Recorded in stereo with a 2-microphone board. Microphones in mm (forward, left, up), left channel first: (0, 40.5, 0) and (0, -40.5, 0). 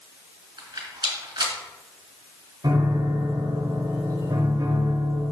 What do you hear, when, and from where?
0.6 s a rattle: 75° right (ahead or behind), 3 m
2.6 s a piano: 65° right (ahead or behind), 2 m